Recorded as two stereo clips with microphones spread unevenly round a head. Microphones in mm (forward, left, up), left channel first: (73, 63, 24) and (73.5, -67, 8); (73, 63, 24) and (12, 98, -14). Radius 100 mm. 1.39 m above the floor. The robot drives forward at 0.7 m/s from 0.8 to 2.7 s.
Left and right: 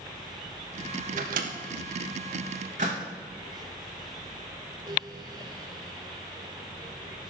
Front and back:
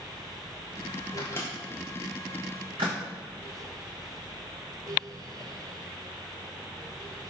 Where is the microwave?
70° right, 0.6 m; by 3.0 s 145° right, 1.0 m.